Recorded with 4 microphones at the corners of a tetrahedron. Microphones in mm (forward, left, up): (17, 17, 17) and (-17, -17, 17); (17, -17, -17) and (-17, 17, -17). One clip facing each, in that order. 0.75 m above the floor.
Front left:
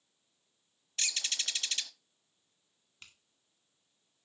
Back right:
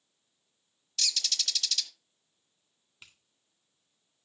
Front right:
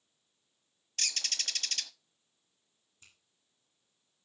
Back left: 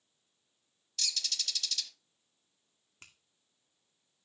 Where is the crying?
I don't hear crying.